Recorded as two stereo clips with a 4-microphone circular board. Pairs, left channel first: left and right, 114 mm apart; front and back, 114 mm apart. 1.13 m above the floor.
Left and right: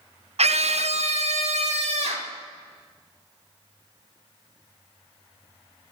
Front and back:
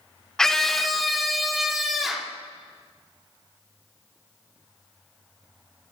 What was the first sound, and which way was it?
A scream, 85° right.